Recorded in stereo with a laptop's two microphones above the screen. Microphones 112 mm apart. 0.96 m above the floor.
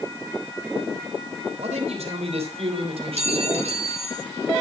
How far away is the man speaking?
About 3 m.